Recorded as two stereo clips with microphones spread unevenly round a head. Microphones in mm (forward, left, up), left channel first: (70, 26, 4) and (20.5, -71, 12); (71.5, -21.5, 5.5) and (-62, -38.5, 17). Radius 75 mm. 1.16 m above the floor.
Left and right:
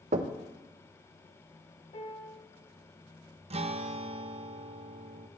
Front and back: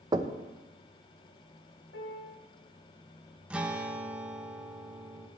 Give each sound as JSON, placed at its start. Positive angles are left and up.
{"t": 0.1, "sound": "knocking", "azimuth_deg": -110, "distance_m": 0.9}
{"t": 1.9, "sound": "a piano", "azimuth_deg": 25, "distance_m": 2.0}
{"t": 3.5, "sound": "a guitar", "azimuth_deg": -90, "distance_m": 1.1}